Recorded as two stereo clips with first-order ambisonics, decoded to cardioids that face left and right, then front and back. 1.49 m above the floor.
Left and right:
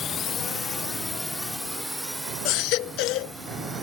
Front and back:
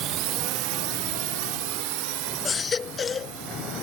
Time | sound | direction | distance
0.0 | a drone | 150° left | ?
2.5 | a baby crying | 70° left | ?